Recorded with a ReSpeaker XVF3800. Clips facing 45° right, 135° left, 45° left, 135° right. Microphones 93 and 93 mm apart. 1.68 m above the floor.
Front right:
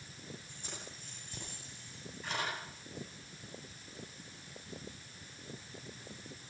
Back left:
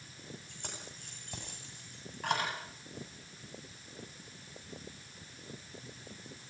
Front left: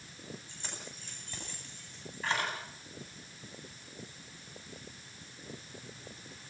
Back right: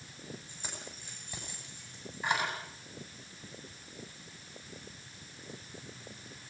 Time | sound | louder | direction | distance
0.5 | keys jangling | back left 1 dB, back right 1 dB | 145° left | 10 m